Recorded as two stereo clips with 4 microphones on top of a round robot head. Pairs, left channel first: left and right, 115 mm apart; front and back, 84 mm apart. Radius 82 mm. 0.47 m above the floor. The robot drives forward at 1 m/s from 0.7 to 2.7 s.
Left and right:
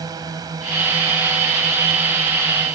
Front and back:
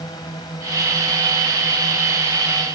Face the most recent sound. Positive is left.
turn(degrees=-40)